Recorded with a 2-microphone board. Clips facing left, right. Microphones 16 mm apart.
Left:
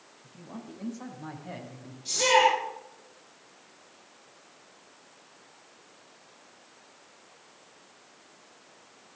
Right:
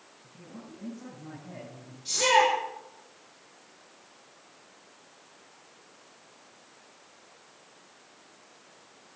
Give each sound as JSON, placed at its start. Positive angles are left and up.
{"t": 0.2, "sound": "a man speaking", "side_deg": 75, "distance_m": 9.5}
{"t": 2.0, "sound": "a shout", "side_deg": 0, "distance_m": 9.0}